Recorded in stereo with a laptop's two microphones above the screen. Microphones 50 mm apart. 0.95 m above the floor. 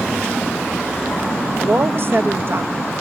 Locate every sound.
1.6 s a woman speaking: 50° right (ahead or behind), 0.9 m